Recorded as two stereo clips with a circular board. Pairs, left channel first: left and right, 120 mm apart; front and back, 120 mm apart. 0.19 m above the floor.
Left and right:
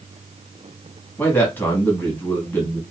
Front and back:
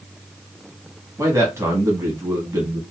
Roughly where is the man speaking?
Behind left.